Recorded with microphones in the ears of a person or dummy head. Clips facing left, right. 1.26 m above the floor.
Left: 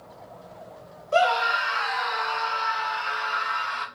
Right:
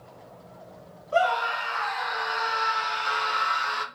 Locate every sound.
1.1 s a scream: 35° left (ahead or behind), 1.3 m; by 3.9 s 60° right (ahead or behind), 1.6 m